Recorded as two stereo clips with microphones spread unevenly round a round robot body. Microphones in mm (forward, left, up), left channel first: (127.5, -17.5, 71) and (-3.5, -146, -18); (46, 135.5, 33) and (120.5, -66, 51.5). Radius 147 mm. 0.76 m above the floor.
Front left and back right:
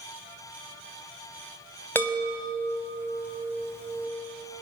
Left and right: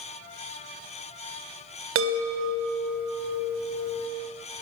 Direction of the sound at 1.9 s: 40° right.